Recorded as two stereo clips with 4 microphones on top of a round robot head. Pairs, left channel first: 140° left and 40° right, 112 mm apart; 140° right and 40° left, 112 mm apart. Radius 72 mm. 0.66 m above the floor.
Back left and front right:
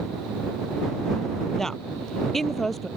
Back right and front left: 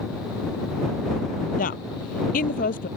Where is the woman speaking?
130° right.